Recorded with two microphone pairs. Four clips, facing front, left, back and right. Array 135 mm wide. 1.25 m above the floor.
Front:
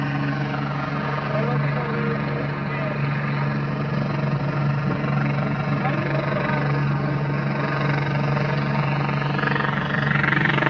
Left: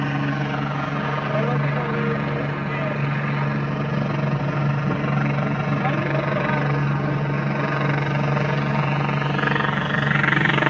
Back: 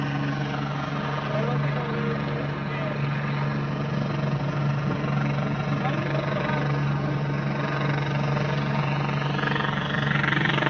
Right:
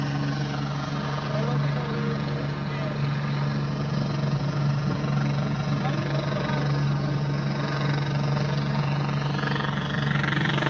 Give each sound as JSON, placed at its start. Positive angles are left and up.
{"t": 0.0, "sound": "a helicopter", "azimuth_deg": 65}